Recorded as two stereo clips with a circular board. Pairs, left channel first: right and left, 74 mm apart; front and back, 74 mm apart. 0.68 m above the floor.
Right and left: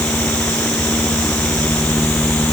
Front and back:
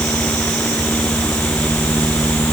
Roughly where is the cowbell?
No cowbell in this recording.